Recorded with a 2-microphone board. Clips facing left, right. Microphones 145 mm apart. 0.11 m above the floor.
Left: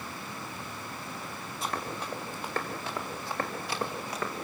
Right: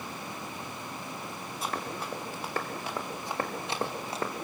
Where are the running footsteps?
5° right (ahead or behind), 5.5 m; by 4.3 s 30° right (ahead or behind), 4 m.